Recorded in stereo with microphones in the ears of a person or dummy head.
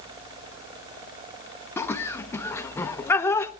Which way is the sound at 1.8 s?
15° left (ahead or behind).